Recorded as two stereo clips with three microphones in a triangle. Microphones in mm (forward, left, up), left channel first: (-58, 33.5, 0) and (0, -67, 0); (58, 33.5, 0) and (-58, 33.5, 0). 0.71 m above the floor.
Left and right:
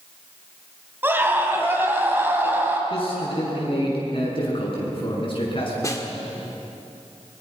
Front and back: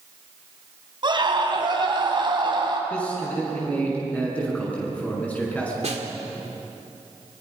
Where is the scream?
130° right, 4 m.